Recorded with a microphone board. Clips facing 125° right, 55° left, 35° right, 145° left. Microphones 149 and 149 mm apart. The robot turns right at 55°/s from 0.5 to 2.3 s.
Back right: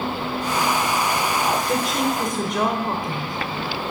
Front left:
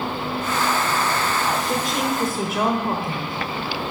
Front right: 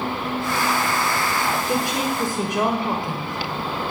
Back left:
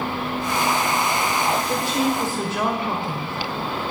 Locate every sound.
1.7 s a woman speaking: 50° right, 1.2 m; by 3.9 s 15° right, 1.2 m